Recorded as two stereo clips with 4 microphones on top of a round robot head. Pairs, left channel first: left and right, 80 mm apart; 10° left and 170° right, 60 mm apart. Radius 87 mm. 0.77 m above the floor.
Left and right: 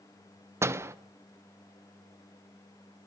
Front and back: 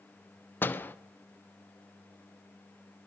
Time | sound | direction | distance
0.6 | a door slam | 40° right | 1.0 m